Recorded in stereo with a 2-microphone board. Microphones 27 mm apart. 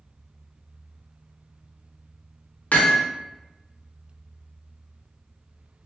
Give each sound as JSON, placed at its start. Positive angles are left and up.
{"t": 2.7, "sound": "hammering", "side_deg": 80, "distance_m": 0.5}